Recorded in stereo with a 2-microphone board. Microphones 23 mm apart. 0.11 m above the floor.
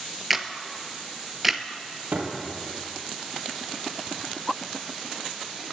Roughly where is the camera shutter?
Centre.